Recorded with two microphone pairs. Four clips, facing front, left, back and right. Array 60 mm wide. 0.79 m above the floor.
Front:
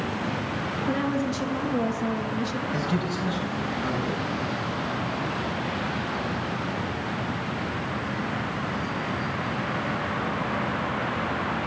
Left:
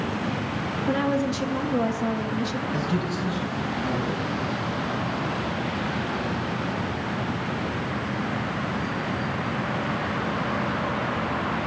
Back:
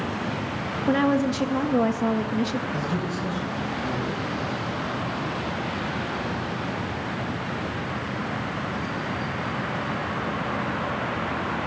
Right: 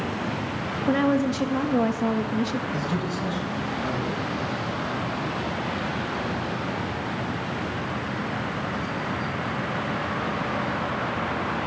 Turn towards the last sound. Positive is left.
turn(degrees=-15)